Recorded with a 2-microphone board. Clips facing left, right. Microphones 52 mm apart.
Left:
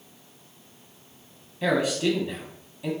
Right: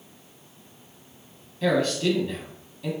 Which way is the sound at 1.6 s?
15° left (ahead or behind).